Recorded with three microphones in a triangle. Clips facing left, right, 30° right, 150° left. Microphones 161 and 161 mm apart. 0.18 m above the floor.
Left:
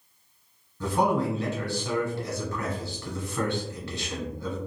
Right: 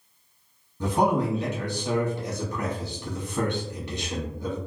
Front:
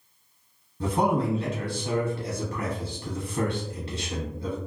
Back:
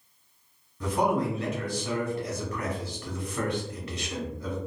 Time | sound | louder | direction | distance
0.8 | a man speaking | right 1 dB, front 1 dB | 40° right | 1.1 m